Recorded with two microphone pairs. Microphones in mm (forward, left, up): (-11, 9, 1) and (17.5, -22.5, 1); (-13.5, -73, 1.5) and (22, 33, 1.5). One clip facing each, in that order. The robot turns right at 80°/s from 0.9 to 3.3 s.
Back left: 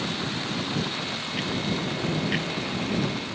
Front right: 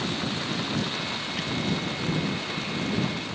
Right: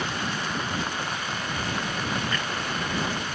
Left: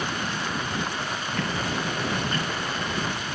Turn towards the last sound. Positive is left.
turn(degrees=-155)